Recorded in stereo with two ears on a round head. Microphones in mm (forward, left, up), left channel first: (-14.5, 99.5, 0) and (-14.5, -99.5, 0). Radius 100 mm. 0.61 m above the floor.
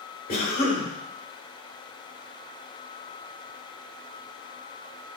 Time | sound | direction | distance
0.3 | a cough | 40° left (ahead or behind) | 2.5 m